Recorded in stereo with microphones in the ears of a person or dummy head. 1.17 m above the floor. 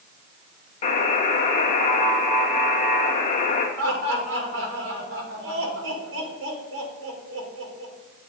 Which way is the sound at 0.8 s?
40° left (ahead or behind).